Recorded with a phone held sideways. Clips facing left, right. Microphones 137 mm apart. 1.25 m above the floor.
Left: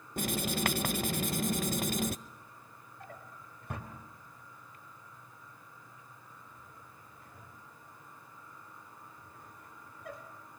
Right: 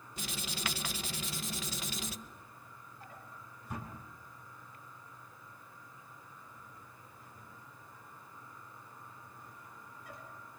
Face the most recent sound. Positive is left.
turn(degrees=60)  # may be behind; listen again after turning